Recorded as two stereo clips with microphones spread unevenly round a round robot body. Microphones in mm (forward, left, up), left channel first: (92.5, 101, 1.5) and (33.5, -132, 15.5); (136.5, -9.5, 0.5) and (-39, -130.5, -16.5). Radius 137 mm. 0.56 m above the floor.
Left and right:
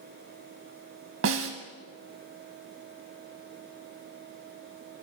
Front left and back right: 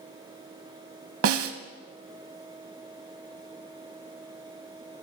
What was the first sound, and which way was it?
A snare drum, 140° right.